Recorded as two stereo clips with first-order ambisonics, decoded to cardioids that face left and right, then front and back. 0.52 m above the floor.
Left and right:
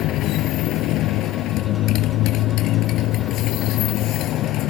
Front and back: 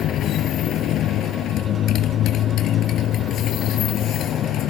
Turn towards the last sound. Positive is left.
turn(degrees=50)